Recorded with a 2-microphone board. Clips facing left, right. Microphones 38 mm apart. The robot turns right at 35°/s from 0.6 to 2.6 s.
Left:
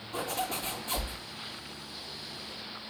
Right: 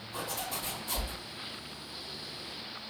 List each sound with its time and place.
0.1 s a zipper: 60° left (ahead or behind), 3 m; by 1.1 s 40° left (ahead or behind), 3 m